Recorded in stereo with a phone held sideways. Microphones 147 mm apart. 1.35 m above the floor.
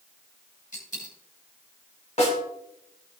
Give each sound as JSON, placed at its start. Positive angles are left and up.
{"t": 0.7, "sound": "a dropped coin", "side_deg": 65, "distance_m": 4.5}
{"t": 2.2, "sound": "a snare drum", "side_deg": 50, "distance_m": 4.5}